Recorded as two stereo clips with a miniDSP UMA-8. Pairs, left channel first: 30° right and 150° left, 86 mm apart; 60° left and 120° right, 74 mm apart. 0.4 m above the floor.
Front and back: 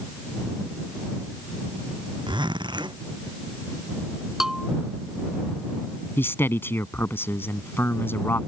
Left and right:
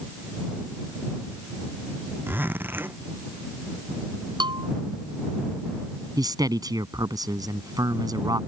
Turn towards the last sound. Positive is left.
turn(degrees=-90)